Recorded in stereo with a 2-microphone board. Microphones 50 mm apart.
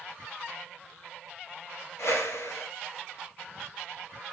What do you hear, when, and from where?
2.0 s a whoosh: 65° left (ahead or behind), 1.4 m